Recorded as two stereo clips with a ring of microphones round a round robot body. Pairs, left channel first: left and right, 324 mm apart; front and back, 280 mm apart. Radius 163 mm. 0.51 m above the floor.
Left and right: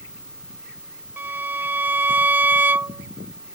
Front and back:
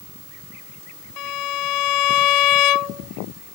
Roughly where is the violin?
Ahead.